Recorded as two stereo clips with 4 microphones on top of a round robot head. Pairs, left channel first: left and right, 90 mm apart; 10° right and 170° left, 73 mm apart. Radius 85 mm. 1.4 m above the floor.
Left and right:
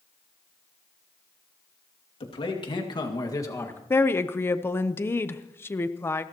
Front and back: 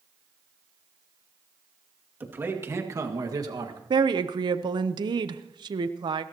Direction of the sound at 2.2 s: 110° left.